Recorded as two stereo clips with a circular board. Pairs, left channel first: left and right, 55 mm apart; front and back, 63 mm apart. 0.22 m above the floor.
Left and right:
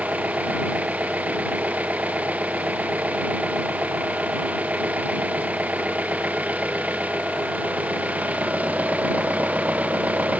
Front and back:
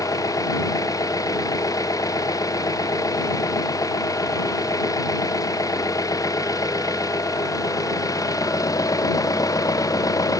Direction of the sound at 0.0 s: 25° right.